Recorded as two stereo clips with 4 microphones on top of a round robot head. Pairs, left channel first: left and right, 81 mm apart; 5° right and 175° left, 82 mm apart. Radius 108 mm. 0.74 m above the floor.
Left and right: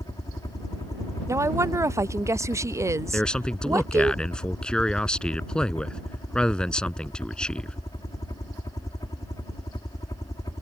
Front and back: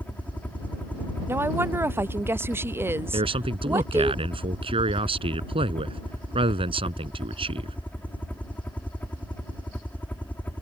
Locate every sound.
0.0 s a helicopter: 60° left
1.3 s a woman speaking: 135° right
3.1 s a man speaking: 170° left